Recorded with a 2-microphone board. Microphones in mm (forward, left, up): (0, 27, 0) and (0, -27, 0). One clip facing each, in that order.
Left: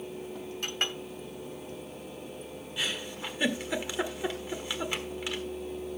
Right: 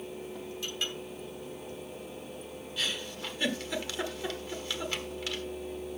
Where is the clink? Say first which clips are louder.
Left 4 dB; 55° left (ahead or behind), 1.1 m.